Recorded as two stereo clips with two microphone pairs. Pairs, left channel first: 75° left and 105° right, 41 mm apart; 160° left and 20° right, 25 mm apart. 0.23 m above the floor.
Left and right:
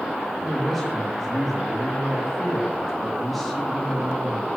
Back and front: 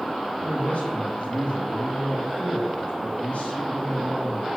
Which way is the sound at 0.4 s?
170° left.